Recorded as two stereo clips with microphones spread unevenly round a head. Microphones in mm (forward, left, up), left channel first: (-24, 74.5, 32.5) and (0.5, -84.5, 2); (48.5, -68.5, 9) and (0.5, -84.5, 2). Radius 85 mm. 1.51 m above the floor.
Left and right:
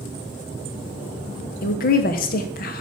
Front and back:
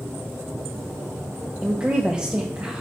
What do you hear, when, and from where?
1.6 s a woman speaking: 115° left, 0.7 m